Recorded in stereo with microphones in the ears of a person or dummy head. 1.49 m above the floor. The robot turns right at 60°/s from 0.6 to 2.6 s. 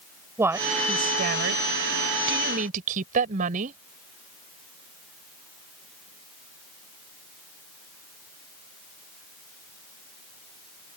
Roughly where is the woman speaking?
Behind.